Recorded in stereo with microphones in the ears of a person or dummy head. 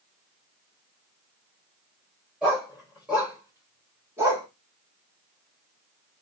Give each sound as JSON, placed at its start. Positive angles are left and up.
{"t": 2.4, "sound": "a dog barking", "side_deg": -5, "distance_m": 3.5}